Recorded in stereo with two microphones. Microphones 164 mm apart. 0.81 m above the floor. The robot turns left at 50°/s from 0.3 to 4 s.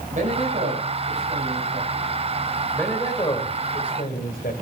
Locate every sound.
0.1 s a man speaking: 50° right, 5.5 m; by 2.1 s 135° right, 5.5 m
2.7 s a man speaking: 175° left, 4 m; by 4.5 s 115° left, 4 m